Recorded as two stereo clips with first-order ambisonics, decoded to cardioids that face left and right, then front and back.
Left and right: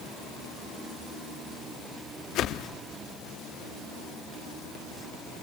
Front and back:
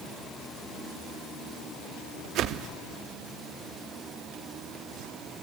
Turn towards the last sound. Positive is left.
turn(degrees=135)